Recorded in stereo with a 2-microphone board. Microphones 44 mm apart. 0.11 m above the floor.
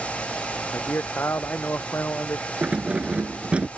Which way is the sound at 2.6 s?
25° right (ahead or behind).